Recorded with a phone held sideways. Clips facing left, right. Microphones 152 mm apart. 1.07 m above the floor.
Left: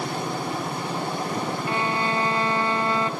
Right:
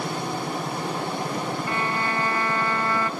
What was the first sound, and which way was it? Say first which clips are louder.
A violin: left 2 dB; 20° left (ahead or behind).